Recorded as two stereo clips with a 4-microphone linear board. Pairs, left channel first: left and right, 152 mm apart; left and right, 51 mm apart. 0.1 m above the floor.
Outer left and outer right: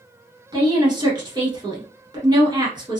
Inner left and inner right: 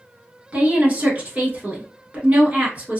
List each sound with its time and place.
0.5 s a woman speaking: 30° right (ahead or behind), 1.2 m